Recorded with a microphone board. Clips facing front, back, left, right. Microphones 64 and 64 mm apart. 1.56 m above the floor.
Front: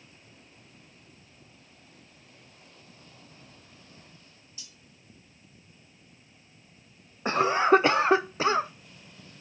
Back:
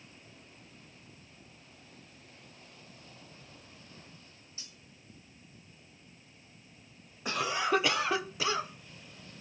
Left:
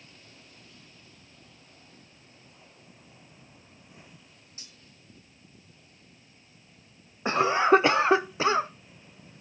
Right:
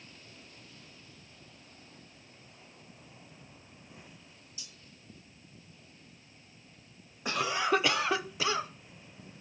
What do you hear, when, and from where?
4.6 s cutlery clinking: 135° left, 1.4 m
7.2 s a cough: 45° left, 0.5 m